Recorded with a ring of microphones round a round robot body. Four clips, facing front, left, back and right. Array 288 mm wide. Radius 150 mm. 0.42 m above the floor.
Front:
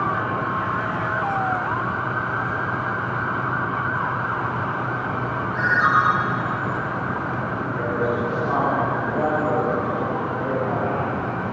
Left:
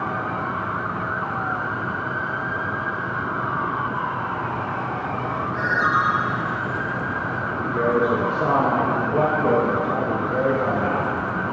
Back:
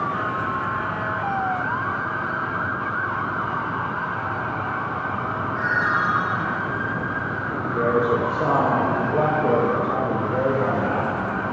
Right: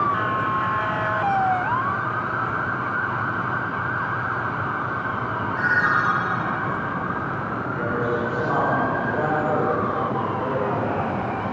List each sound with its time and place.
5.5 s a ringtone: 15° left, 7.5 m
7.6 s a man speaking: 130° left, 7 m